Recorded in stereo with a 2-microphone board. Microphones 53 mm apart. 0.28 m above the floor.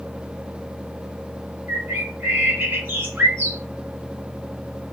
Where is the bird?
40° right (ahead or behind), 1.5 m.